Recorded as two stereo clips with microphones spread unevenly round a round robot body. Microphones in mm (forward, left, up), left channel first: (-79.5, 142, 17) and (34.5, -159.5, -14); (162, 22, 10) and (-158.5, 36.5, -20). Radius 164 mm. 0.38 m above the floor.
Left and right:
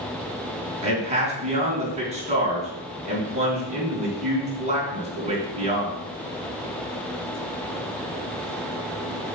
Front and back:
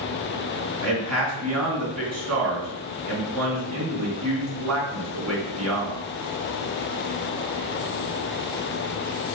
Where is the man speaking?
140° right, 3.5 m.